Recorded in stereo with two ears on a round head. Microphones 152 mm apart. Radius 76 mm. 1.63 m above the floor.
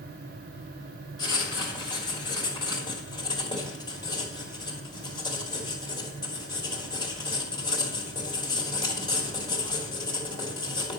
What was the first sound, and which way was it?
Writing, 25° left (ahead or behind).